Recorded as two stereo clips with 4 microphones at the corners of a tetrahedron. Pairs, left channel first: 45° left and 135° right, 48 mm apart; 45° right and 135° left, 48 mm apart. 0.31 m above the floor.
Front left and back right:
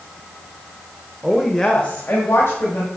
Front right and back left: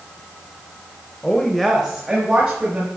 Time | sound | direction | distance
1.2 | a woman speaking | 85° right | 0.9 m